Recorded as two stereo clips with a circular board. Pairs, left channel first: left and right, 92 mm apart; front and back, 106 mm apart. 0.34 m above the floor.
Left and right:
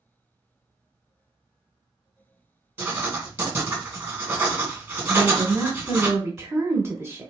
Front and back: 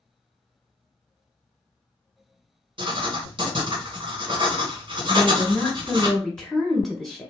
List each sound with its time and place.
2.8 s writing: 155° right, 1.3 m
5.1 s a woman speaking: 85° right, 1.1 m